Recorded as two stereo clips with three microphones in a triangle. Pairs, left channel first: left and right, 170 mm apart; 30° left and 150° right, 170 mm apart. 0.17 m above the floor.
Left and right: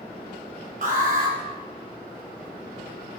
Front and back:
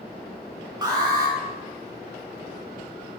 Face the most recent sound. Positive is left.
turn(degrees=-90)